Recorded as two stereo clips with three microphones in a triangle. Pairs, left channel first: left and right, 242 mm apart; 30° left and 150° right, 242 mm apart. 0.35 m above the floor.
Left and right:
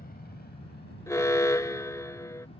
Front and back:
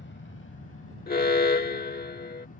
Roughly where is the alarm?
Ahead.